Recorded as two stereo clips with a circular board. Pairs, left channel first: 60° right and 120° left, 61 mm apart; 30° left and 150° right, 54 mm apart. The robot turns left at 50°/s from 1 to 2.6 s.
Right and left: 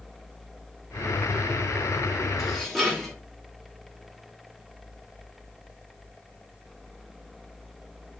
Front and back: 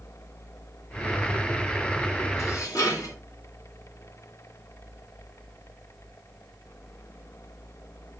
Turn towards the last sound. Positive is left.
turn(degrees=25)